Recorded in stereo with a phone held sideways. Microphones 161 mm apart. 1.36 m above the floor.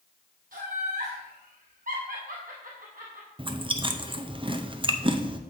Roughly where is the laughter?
Right.